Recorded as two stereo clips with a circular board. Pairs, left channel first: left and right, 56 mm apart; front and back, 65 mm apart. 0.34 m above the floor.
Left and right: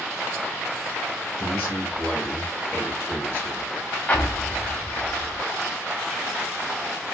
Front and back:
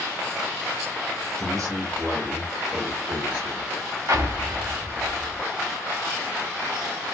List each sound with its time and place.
1.4 s a man speaking: 175° right, 1.7 m; by 3.7 s 100° right, 1.2 m
4.1 s an explosion: 155° left, 0.8 m